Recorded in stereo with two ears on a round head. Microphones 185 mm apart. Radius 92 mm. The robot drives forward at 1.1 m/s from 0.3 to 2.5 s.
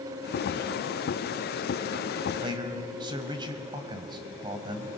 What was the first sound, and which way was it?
A man speaking, 25° right (ahead or behind).